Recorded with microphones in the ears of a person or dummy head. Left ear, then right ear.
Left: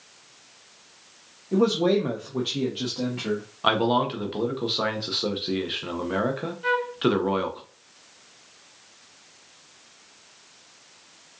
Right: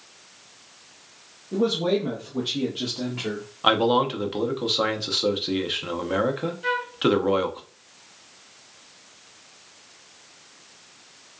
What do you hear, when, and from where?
1.5 s a man speaking: 70° left (ahead or behind), 0.9 m; by 3.4 s 10° right (ahead or behind), 1.2 m
3.6 s a man speaking: centre (ahead or behind), 0.6 m
6.6 s a flute: 5° right (ahead or behind), 0.6 m